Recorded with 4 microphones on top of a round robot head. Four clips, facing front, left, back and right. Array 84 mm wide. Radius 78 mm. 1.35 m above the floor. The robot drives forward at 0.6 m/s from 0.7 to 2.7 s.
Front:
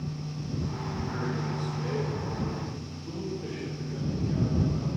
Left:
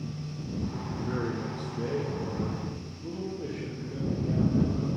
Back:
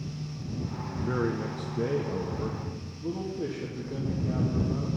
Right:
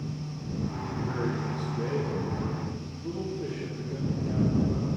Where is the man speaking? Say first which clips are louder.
Right 1 dB, back 5 dB; 170° left, 0.7 m; by 4.9 s 175° left, 1.7 m.